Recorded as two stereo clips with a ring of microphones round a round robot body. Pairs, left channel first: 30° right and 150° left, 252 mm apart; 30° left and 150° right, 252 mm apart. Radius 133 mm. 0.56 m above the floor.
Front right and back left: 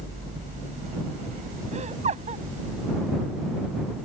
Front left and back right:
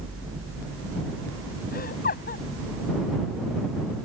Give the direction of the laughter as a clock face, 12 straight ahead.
9 o'clock.